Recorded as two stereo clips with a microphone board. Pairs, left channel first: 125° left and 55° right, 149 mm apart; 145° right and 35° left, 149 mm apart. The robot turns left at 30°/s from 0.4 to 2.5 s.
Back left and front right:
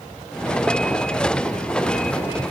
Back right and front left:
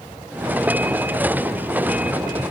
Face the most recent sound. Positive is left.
No sound to turn to.